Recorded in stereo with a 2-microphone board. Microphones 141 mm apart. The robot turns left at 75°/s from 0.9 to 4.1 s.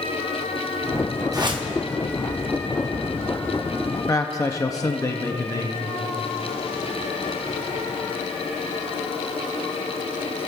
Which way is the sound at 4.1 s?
25° left (ahead or behind).